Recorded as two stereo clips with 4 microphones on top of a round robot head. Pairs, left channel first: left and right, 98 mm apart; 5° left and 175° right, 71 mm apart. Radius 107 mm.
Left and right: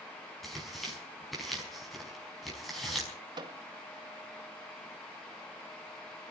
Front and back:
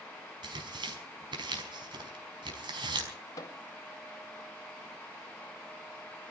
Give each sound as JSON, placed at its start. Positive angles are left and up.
{"t": 0.4, "sound": "tearing paper", "azimuth_deg": 180, "distance_m": 5.0}
{"t": 3.4, "sound": "a microwave", "azimuth_deg": -45, "distance_m": 1.9}